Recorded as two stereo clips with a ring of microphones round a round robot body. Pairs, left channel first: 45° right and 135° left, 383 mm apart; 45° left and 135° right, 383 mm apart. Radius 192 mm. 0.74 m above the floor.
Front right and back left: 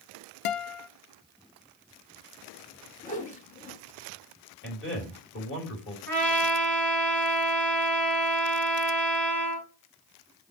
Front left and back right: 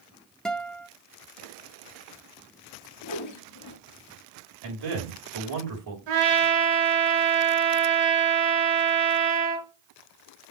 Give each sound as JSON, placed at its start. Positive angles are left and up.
{"t": 0.5, "sound": "a guitar", "azimuth_deg": -45, "distance_m": 0.5}
{"t": 3.0, "sound": "a whoosh", "azimuth_deg": 20, "distance_m": 1.0}
{"t": 4.6, "sound": "a man speaking", "azimuth_deg": -105, "distance_m": 3.5}
{"t": 6.1, "sound": "a trumpet", "azimuth_deg": -130, "distance_m": 4.5}